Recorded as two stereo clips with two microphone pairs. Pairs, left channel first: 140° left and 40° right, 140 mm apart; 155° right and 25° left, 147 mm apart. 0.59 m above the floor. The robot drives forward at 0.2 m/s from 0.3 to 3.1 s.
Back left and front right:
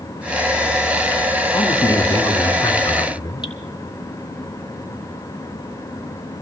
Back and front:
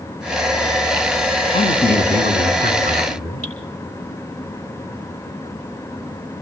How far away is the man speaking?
About 5 m.